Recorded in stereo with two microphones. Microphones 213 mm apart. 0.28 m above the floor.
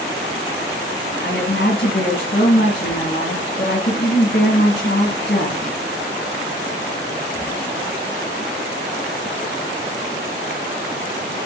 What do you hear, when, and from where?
1.2 s a woman speaking: 60° left (ahead or behind), 2.5 m